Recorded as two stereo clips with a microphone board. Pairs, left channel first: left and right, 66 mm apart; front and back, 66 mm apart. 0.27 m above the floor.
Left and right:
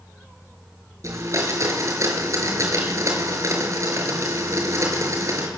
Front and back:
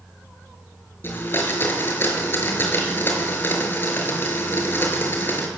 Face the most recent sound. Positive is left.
turn(degrees=-55)